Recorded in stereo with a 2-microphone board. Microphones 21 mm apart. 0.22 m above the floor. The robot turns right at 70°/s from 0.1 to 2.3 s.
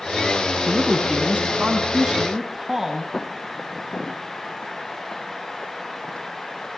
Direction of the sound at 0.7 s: 140° right.